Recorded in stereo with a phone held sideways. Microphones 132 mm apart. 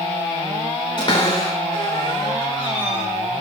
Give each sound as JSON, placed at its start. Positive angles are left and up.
{"t": 1.0, "sound": "a cupboard door", "side_deg": 40, "distance_m": 2.5}